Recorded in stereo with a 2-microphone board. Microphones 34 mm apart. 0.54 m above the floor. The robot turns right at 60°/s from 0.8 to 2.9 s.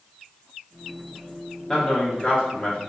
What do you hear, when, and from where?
1.7 s a man speaking: 20° left (ahead or behind), 1.2 m; by 2.8 s 25° left (ahead or behind), 1.2 m